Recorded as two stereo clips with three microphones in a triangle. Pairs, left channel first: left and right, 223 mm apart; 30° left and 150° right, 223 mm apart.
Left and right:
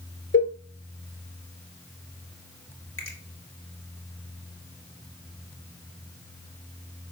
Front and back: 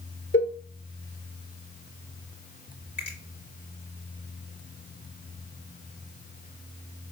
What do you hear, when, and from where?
0.3 s a cowbell: 60° left, 1.0 m
3.0 s a finger snap: 65° left, 2.5 m